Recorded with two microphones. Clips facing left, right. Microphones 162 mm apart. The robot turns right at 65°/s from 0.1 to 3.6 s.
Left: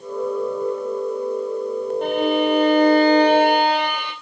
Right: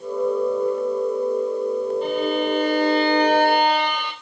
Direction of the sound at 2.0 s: 65° left.